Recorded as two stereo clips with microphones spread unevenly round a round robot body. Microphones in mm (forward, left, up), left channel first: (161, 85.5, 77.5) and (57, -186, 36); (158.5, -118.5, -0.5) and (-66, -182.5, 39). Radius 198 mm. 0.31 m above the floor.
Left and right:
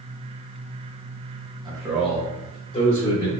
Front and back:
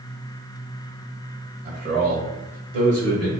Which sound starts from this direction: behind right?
A man speaking, at 1.6 s.